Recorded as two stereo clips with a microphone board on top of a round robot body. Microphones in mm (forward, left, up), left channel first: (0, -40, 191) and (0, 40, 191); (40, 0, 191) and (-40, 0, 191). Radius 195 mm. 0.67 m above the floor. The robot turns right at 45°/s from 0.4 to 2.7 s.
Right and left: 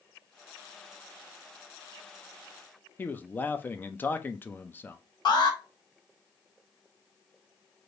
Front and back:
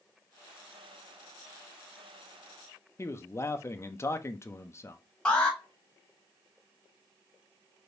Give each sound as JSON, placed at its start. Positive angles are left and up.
{"t": 3.0, "sound": "a man speaking", "azimuth_deg": -35, "distance_m": 0.7}
{"t": 5.2, "sound": "an alarm", "azimuth_deg": -75, "distance_m": 1.9}